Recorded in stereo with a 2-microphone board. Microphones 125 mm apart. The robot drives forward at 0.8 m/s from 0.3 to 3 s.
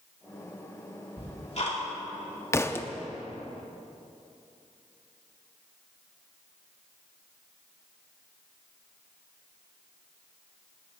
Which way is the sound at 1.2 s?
50° left (ahead or behind).